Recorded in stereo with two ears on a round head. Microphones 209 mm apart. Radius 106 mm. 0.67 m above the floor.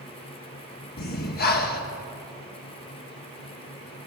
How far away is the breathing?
About 1.2 m.